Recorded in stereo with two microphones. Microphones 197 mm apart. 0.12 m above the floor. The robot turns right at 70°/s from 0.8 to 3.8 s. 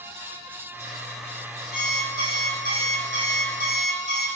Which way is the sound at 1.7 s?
Straight behind.